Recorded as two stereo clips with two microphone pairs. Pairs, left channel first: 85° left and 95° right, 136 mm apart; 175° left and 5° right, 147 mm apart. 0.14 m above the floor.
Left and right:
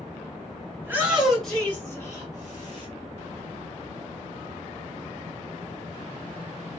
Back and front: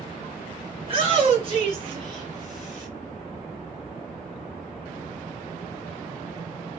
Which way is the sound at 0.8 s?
30° right.